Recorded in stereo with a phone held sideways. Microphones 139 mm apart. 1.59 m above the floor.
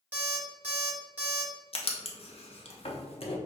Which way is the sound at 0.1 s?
10° right (ahead or behind).